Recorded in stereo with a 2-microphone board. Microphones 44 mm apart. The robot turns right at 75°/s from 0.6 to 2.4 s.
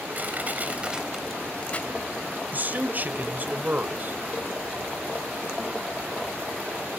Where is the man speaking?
45° right (ahead or behind), 1.2 m.